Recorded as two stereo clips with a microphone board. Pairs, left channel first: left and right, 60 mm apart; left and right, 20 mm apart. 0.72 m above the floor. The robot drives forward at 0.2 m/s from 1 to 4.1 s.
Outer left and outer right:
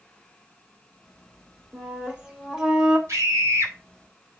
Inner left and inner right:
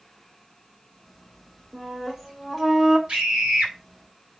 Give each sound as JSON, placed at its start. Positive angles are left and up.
{"t": 1.7, "sound": "a flute", "side_deg": -20, "distance_m": 2.0}
{"t": 3.1, "sound": "a scream", "side_deg": -60, "distance_m": 4.0}